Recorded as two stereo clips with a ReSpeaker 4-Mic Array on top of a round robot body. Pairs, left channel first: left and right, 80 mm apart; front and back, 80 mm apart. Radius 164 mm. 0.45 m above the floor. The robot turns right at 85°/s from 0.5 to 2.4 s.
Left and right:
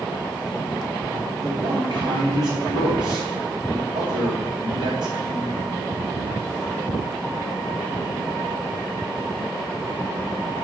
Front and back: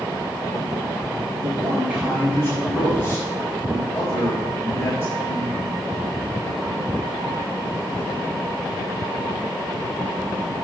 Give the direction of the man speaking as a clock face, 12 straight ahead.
5 o'clock.